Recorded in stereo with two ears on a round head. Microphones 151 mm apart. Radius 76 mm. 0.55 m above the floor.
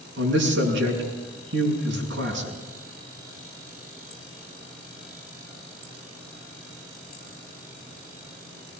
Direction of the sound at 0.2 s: 70° right (ahead or behind).